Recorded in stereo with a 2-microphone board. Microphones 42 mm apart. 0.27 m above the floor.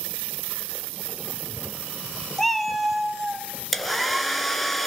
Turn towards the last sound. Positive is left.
turn(degrees=0)  # may be behind; listen again after turning